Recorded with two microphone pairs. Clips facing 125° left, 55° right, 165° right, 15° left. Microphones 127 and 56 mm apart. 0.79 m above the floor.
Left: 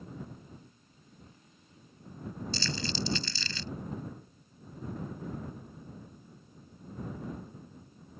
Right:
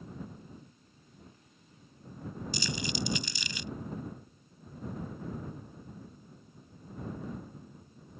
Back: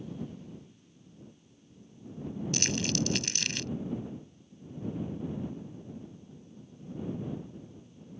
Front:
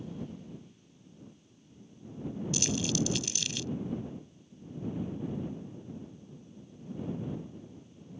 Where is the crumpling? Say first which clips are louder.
Even, even; 130° right.